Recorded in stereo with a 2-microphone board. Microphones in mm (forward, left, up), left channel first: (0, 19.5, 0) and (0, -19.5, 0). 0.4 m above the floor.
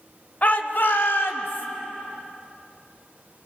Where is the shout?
40° left (ahead or behind), 1.3 m; by 1.7 s 70° left (ahead or behind), 2.5 m.